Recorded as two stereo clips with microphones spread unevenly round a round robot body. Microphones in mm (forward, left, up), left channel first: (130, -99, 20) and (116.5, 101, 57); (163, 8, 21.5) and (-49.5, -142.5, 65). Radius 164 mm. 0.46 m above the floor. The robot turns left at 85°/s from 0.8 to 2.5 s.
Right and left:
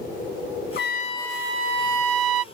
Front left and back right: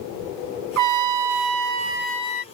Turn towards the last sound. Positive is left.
turn(degrees=85)